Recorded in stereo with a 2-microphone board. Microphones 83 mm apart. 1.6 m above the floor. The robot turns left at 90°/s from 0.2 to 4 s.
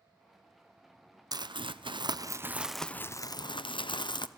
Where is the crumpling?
50° right, 0.6 m; by 4.3 s 65° left, 0.6 m.